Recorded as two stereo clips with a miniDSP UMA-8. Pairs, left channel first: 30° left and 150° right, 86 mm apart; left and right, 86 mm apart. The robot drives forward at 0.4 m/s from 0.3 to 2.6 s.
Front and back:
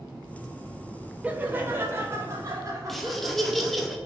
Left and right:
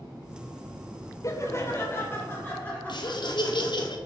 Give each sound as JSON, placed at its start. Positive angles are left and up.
{"t": 1.2, "sound": "laughter", "azimuth_deg": 140, "distance_m": 0.6}
{"t": 2.9, "sound": "laughter", "azimuth_deg": 120, "distance_m": 0.6}